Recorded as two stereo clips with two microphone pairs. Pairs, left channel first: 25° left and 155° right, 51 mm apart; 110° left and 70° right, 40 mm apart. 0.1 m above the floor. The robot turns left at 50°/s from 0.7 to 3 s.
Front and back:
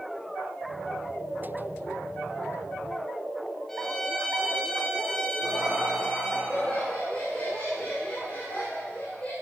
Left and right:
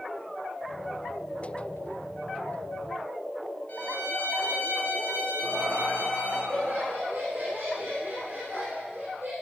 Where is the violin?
110° left, 2.5 m.